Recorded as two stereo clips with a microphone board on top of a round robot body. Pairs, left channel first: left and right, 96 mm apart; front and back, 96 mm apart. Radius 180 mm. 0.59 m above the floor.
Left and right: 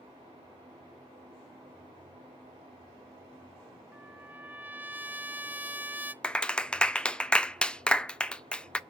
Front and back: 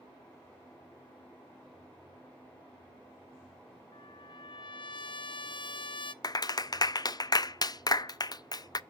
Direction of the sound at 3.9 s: 20° right.